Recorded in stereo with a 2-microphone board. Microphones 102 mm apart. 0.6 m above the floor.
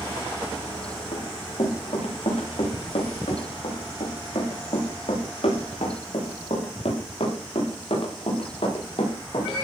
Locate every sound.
1.1 s running footsteps: 65° left (ahead or behind), 9.5 m; by 9.5 s 60° left (ahead or behind), 11.5 m